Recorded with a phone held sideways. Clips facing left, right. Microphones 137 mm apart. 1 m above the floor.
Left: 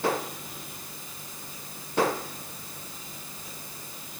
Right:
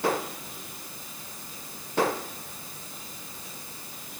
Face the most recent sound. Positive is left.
No sound to turn to.